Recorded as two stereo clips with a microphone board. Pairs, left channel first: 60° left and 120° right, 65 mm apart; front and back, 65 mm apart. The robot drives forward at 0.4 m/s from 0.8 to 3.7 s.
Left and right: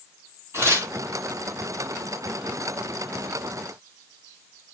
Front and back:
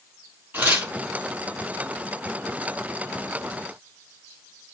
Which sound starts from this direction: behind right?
Tearing paper, at 0.5 s.